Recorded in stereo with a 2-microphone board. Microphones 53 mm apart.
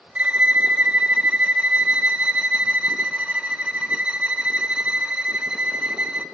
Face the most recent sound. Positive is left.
turn(degrees=-20)  # may be behind; listen again after turning